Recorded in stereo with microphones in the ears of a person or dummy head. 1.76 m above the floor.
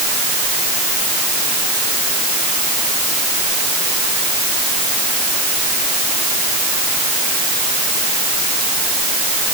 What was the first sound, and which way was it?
Only background noise.